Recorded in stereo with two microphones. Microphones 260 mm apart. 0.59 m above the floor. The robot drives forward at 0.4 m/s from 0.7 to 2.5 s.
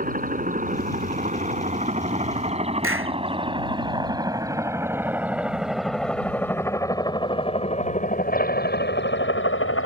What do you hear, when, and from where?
0.0 s a helicopter: 30° right (ahead or behind); by 9.9 s 55° left (ahead or behind)
2.8 s a clap: 55° right (ahead or behind)